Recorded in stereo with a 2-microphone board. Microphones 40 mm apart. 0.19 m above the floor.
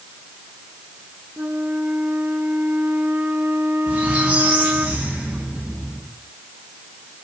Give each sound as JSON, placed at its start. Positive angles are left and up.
{"t": 1.4, "sound": "a flute", "side_deg": -45, "distance_m": 2.0}
{"t": 3.9, "sound": "a squeak", "side_deg": -35, "distance_m": 8.0}